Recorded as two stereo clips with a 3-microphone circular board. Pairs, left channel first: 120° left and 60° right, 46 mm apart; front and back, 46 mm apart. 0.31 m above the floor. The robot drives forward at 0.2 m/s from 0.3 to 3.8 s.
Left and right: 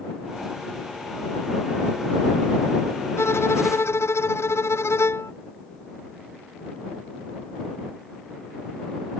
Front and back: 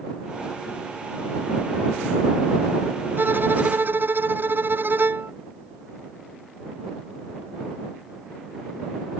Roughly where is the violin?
Behind left.